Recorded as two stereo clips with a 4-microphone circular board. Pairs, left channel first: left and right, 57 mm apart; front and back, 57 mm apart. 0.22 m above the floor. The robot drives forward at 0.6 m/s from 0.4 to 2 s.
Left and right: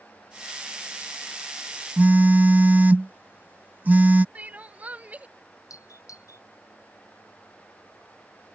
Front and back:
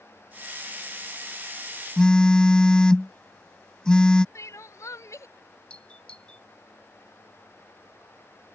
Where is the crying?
25° right.